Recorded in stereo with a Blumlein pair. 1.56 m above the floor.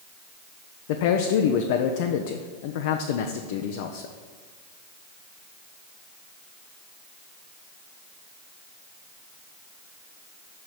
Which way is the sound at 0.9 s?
50° left.